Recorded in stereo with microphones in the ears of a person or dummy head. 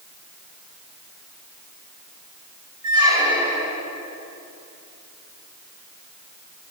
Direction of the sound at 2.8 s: 15° right (ahead or behind).